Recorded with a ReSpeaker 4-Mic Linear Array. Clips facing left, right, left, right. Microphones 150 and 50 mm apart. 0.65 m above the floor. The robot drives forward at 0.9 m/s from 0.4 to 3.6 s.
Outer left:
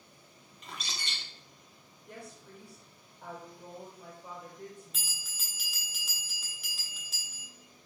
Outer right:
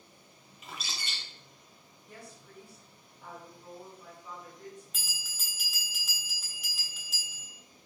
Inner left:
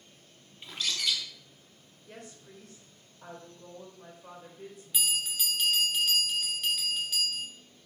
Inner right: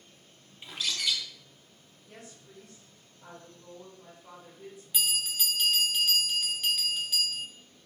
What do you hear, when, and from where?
0.6 s a bird: 5° right (ahead or behind), 0.9 m
2.1 s a woman speaking: 65° left (ahead or behind), 3 m
4.9 s a bell: centre (ahead or behind), 1.6 m